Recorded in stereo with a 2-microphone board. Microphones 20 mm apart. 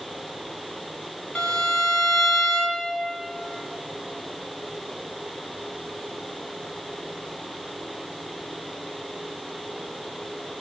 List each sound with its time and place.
1.4 s a violin: 60° left (ahead or behind), 2.5 m